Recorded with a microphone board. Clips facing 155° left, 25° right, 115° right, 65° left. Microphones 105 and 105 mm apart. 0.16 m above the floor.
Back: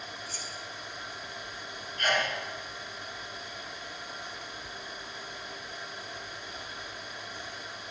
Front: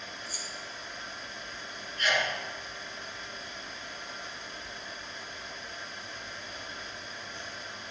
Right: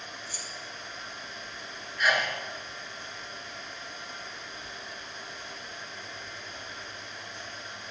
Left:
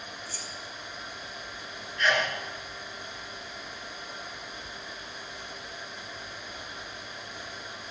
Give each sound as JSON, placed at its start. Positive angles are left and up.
{"t": 0.3, "sound": "keys jangling", "azimuth_deg": -80, "distance_m": 1.1}
{"t": 2.0, "sound": "a sneeze", "azimuth_deg": 170, "distance_m": 1.9}